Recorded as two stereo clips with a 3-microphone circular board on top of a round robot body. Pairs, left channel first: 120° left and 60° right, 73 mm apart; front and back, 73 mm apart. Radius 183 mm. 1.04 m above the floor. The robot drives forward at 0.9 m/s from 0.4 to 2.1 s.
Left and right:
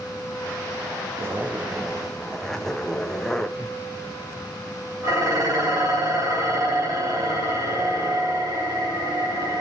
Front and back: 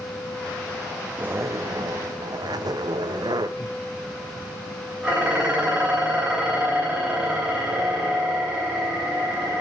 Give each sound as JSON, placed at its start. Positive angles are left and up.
{"t": 1.2, "sound": "a zipper", "azimuth_deg": -110, "distance_m": 0.5}
{"t": 3.6, "sound": "laughter", "azimuth_deg": -50, "distance_m": 6.0}
{"t": 5.0, "sound": "dishes clattering", "azimuth_deg": -100, "distance_m": 4.5}